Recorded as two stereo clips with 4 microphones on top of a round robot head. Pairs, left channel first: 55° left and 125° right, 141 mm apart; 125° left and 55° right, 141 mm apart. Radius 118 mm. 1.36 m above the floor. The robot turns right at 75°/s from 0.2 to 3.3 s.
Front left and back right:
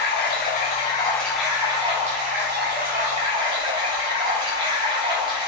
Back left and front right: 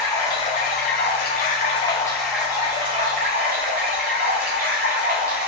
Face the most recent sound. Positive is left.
turn(degrees=-70)